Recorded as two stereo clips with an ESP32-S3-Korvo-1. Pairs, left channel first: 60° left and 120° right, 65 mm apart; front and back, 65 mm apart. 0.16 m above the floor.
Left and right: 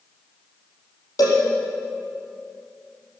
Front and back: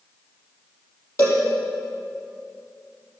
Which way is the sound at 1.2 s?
40° left.